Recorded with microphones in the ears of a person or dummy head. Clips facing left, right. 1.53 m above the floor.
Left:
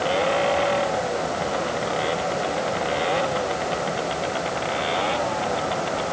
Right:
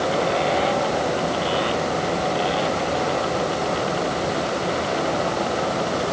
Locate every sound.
Only background noise.